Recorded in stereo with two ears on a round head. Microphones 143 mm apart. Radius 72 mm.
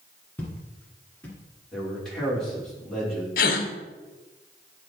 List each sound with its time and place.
0.4 s footsteps: 10° left (ahead or behind), 1.6 m
1.7 s a man speaking: 5° left (ahead or behind), 3 m
3.4 s a gasp: 65° left (ahead or behind), 0.8 m